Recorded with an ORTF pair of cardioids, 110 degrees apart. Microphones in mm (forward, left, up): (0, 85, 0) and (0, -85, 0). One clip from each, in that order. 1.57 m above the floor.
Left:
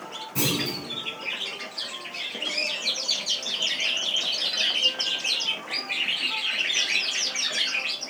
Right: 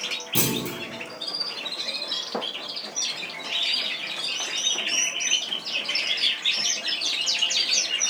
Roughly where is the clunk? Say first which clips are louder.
Left 3 dB; ahead right.